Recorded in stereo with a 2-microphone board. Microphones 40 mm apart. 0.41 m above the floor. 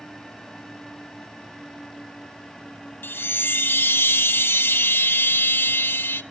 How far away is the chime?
About 0.5 m.